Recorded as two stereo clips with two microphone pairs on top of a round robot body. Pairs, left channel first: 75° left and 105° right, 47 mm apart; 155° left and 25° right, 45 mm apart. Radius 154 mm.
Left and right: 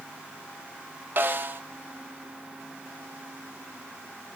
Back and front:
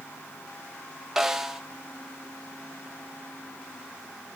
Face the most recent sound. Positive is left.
turn(degrees=-110)